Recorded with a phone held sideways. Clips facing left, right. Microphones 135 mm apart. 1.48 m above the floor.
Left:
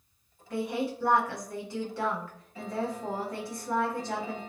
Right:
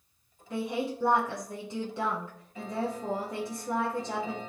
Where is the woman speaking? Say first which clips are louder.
Left 1 dB; 20° right (ahead or behind), 0.5 m.